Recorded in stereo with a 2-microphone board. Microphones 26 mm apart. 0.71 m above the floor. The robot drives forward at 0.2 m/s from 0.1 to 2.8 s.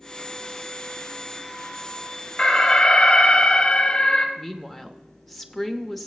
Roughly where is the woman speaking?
Centre.